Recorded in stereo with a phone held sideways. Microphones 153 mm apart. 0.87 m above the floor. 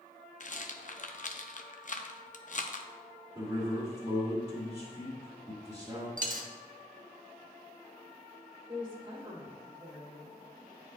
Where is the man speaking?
25° right (ahead or behind), 1.9 m.